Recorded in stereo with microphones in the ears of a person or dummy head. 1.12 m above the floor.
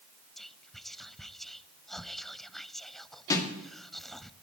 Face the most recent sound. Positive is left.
turn(degrees=20)  # may be behind; listen again after turning